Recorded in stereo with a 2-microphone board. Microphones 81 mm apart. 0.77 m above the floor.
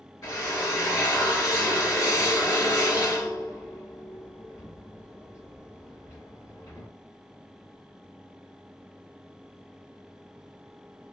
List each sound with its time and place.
0.2 s a drill: 45° left (ahead or behind), 1.4 m